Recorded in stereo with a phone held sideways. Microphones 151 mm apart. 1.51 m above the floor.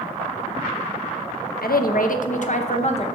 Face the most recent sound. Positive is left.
turn(degrees=45)  # may be behind; listen again after turning